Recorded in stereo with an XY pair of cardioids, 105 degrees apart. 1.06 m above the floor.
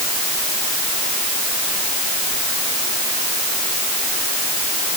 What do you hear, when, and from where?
Only background noise.